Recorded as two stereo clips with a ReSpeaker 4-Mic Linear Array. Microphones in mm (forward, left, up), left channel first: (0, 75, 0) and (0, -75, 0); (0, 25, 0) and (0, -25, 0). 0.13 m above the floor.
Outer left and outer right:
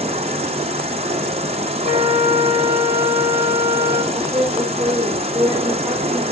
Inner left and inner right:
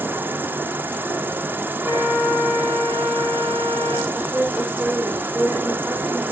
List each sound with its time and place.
0.0 s an insect: 45° right (ahead or behind), 0.7 m
1.8 s a flute: 75° left (ahead or behind), 2.0 m
4.1 s a woman speaking: 15° right (ahead or behind), 5.5 m